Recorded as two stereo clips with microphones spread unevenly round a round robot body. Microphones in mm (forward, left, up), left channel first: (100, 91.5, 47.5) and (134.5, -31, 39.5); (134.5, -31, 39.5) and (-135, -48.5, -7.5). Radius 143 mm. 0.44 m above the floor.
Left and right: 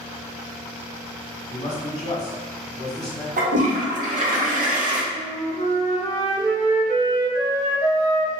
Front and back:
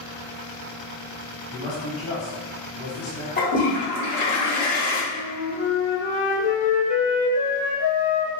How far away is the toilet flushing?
About 0.9 m.